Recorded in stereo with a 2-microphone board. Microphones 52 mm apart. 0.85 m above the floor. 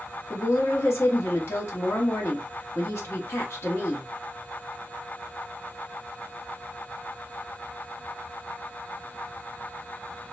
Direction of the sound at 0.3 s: 55° left (ahead or behind).